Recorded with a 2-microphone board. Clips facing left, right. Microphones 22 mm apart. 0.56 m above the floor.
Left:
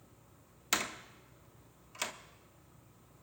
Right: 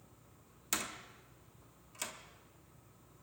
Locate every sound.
0.7 s a door slam: 25° left (ahead or behind), 0.7 m